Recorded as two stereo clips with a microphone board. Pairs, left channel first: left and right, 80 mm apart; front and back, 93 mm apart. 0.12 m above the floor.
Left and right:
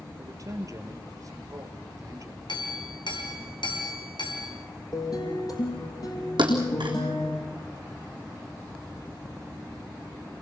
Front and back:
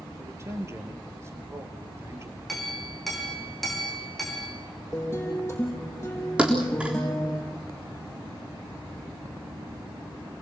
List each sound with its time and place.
0.2 s a man speaking: 125° right, 3 m
2.5 s a clink: 90° left, 4 m
4.9 s a guitar: 60° left, 5 m
6.4 s a thud: 105° right, 4 m